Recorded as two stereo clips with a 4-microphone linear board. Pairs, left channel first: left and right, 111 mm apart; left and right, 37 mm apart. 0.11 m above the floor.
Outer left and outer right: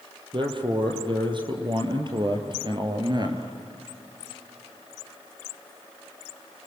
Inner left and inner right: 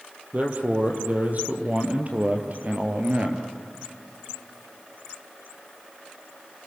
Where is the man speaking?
45° right (ahead or behind), 4 m; by 3.5 s 40° right (ahead or behind), 2.5 m.